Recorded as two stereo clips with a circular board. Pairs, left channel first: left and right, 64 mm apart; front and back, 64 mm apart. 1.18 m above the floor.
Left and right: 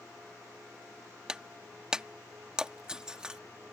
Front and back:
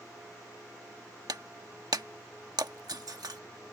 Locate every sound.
1.3 s breaking glass: 170° right